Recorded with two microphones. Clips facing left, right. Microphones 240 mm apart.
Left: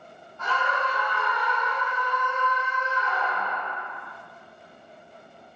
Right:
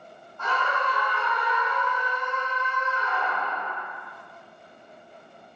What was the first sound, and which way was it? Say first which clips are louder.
A scream: even; 50° right (ahead or behind).